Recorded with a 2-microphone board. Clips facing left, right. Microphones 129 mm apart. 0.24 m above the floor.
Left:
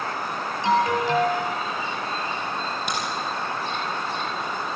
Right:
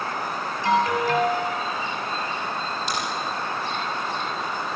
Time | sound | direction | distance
0.6 | an alarm | 20° left (ahead or behind) | 5.5 m
2.9 | a crack | 60° left (ahead or behind) | 7 m